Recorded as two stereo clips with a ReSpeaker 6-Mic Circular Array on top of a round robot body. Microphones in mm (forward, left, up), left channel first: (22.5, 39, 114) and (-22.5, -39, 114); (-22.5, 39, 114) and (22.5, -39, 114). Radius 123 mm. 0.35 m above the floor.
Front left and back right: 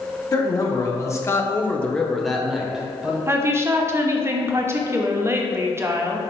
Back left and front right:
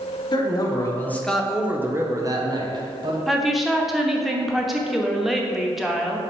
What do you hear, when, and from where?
0.3 s a man speaking: 100° left, 1.3 m; by 3.2 s 40° right, 1.7 m
3.3 s a woman speaking: 145° right, 1.0 m